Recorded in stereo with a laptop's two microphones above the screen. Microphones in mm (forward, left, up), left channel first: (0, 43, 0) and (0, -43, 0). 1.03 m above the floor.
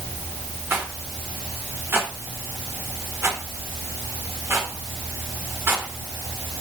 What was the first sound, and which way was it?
A rattle, 30° right (ahead or behind).